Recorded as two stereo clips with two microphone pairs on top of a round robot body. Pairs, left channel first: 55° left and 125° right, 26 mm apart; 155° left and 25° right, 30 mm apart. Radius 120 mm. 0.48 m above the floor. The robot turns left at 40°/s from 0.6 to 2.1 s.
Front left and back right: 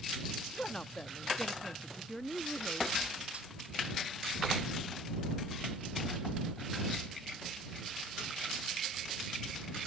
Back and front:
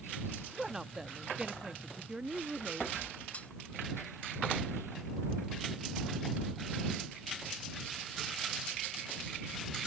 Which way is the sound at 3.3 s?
160° right.